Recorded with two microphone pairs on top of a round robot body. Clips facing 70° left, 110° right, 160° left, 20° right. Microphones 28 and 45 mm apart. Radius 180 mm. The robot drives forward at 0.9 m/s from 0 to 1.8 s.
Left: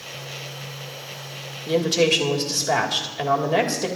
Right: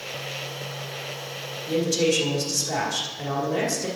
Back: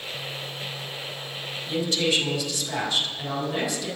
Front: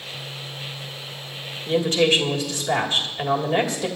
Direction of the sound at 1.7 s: 30° left.